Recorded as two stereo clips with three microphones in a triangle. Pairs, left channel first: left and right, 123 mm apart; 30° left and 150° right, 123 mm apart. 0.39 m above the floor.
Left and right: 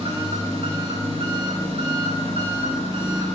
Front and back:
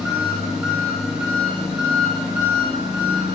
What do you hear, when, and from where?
0.0 s an engine running: 65° right, 1.6 m